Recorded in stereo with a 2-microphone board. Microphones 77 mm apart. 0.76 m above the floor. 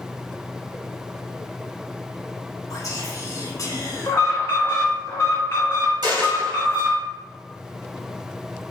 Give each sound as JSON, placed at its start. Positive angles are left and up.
{"t": 2.7, "sound": "whispering", "side_deg": 45, "distance_m": 1.3}
{"t": 4.1, "sound": "an alarm", "side_deg": 35, "distance_m": 1.5}
{"t": 6.0, "sound": "a dropped coin", "side_deg": -60, "distance_m": 2.0}